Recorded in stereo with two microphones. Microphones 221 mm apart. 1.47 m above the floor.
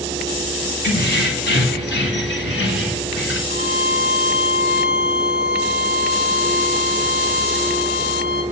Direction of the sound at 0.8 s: 50° left (ahead or behind).